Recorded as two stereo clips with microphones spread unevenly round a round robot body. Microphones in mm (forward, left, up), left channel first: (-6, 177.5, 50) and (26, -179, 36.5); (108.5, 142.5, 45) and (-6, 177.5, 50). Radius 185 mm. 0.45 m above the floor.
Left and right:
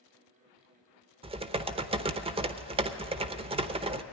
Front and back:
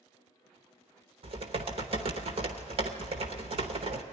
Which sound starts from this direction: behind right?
Typing on a keyboard, at 1.2 s.